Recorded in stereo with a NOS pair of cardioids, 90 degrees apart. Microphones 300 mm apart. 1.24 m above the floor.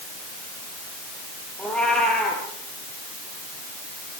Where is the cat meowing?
5° left, 6.5 m.